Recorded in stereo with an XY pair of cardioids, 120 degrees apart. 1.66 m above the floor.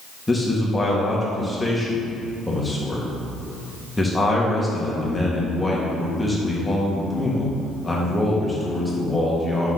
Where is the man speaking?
10° left, 2 m.